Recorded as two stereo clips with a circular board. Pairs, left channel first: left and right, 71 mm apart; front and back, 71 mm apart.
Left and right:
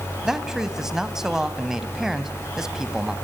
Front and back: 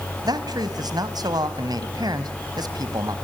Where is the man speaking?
175° right, 1.9 m.